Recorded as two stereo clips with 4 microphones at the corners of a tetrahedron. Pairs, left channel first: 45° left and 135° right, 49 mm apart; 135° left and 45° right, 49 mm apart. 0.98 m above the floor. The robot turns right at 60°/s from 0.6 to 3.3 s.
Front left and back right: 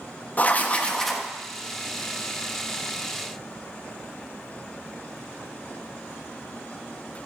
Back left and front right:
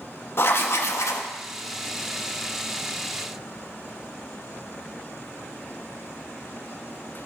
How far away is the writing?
About 0.9 m.